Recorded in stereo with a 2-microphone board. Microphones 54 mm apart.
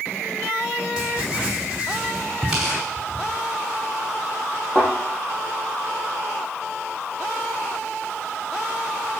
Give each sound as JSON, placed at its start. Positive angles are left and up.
{"t": 1.0, "sound": "writing", "side_deg": -15, "distance_m": 3.5}
{"t": 2.5, "sound": "tearing paper", "side_deg": -10, "distance_m": 5.0}
{"t": 4.8, "sound": "a thud", "side_deg": 20, "distance_m": 7.0}